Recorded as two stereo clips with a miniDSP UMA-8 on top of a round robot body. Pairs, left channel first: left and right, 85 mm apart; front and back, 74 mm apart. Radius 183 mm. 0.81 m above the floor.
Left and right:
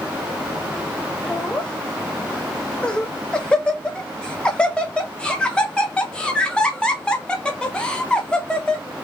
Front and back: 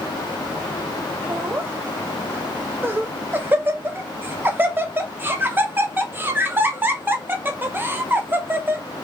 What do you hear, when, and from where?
1.3 s laughter: 155° left, 1.0 m